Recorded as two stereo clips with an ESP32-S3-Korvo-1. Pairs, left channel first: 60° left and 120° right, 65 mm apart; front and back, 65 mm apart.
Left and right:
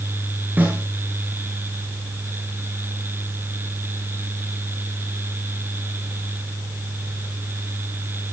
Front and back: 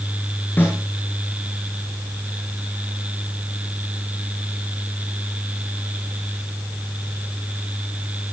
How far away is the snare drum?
About 7 m.